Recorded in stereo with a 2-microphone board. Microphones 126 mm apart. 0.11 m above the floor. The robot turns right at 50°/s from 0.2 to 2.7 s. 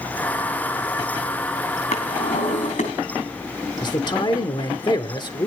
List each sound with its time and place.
1.9 s a drawer: 60° left, 2.5 m; by 2.9 s 100° left, 2.5 m
3.8 s a man speaking: 35° left (ahead or behind), 1.5 m